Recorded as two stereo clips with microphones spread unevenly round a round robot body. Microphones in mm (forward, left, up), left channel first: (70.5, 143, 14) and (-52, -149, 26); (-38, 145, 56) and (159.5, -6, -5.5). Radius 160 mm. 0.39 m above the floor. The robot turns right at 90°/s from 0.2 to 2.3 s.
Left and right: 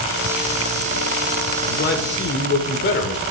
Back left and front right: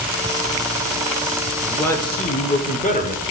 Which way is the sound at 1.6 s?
25° left.